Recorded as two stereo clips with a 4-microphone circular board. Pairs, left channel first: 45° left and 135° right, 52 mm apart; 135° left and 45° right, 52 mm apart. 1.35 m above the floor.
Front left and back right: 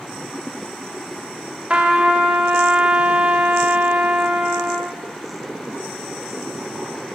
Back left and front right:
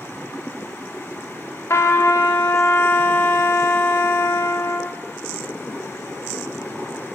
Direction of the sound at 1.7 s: 155° left.